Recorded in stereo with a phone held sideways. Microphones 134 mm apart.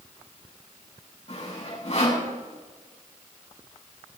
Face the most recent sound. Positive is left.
turn(degrees=50)  # may be behind; listen again after turning